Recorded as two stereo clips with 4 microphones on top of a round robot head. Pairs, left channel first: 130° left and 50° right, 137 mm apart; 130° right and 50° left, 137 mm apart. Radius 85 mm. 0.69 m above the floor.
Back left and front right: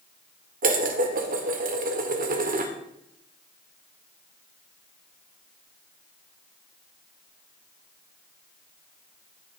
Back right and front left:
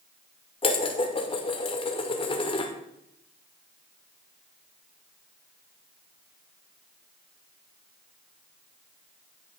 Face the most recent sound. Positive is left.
turn(degrees=-75)